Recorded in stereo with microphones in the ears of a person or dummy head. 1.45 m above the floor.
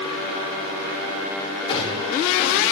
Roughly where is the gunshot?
Left.